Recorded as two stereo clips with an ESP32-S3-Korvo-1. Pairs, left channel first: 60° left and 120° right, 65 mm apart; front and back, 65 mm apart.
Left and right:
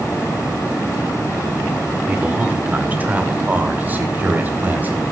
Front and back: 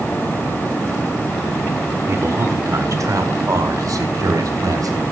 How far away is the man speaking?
About 1.4 m.